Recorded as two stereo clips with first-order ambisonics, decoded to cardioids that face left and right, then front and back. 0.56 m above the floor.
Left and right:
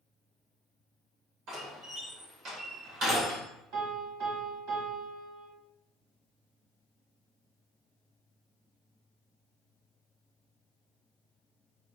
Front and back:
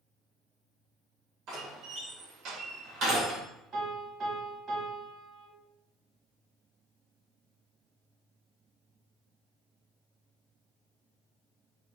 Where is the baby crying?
I don't hear a baby crying.